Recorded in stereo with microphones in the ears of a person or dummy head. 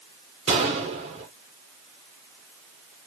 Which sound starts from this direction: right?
A gunshot, at 0.5 s.